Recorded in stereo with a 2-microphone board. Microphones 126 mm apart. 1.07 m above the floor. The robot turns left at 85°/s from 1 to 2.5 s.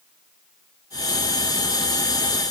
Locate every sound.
Only background noise.